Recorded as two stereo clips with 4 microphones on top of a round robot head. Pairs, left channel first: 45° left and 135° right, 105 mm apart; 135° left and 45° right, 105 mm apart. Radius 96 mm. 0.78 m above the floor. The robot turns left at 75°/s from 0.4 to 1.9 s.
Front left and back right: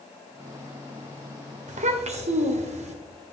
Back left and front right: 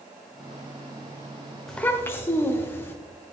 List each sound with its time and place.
1.7 s a child speaking: 135° right, 1.5 m; by 3.0 s 155° right, 1.5 m